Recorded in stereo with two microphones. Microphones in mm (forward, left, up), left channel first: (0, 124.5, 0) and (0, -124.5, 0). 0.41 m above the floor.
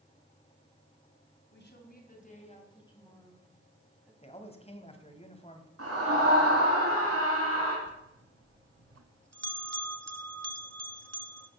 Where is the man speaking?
25° left (ahead or behind), 2 m.